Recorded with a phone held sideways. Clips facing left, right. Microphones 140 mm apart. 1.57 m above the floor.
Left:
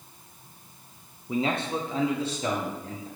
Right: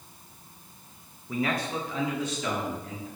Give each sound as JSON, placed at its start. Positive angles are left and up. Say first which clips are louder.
{"t": 1.3, "sound": "a man speaking", "louder": "left 2 dB", "side_deg": 20, "distance_m": 0.5}